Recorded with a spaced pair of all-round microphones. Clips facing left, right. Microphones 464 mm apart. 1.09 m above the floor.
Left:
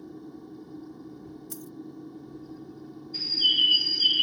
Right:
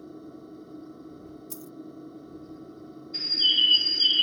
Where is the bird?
70° right (ahead or behind).